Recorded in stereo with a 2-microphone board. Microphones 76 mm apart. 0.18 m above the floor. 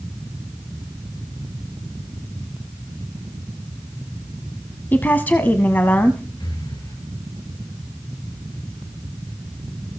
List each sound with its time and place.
4.9 s a woman speaking: 25° left (ahead or behind), 1.0 m
6.4 s breathing: 60° left (ahead or behind), 2.5 m